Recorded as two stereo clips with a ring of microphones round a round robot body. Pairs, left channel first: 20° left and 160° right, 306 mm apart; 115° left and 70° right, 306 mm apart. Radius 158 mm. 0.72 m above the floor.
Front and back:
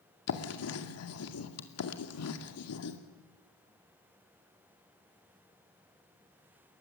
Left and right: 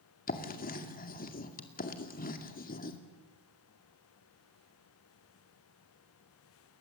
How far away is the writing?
About 2.5 m.